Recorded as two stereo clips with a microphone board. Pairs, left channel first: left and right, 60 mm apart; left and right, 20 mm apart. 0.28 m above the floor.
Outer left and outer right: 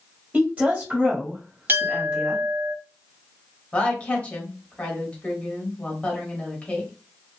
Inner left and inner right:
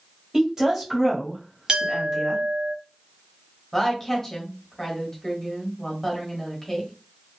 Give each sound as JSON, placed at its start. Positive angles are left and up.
{"t": 0.3, "sound": "a woman speaking", "side_deg": -25, "distance_m": 1.3}
{"t": 1.7, "sound": "a clink", "side_deg": -35, "distance_m": 0.7}
{"t": 3.7, "sound": "a woman speaking", "side_deg": 20, "distance_m": 0.9}